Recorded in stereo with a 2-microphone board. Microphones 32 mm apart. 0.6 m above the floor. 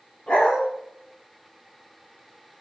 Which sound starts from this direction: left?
A dog barking, at 0.3 s.